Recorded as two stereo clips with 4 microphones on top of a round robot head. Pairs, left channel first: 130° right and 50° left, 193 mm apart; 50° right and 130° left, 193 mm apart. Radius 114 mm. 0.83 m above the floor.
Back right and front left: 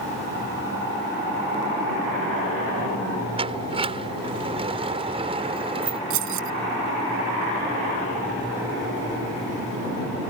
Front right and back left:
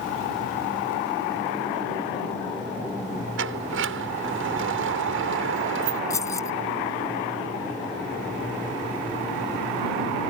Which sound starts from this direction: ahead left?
Keys jangling, at 6.1 s.